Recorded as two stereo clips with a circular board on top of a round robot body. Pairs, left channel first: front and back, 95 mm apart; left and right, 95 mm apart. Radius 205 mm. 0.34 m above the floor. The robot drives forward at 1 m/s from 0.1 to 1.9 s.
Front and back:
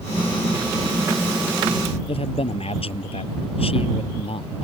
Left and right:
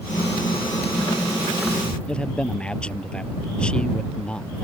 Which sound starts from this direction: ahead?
A man speaking, at 2.1 s.